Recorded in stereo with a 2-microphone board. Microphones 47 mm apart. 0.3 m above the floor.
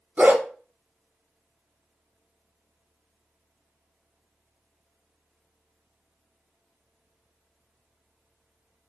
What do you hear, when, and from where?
0.2 s a dog barking: 40° right (ahead or behind), 1.1 m